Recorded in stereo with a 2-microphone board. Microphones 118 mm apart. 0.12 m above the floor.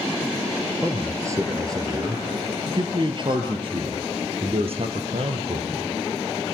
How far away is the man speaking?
About 3 m.